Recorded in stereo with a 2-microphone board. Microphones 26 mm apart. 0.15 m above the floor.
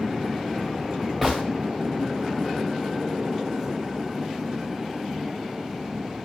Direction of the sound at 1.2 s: 5° left (ahead or behind).